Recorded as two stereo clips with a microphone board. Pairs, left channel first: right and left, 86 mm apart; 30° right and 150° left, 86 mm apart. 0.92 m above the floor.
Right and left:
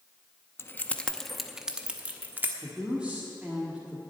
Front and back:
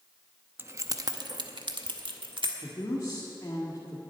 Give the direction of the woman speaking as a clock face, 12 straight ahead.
12 o'clock.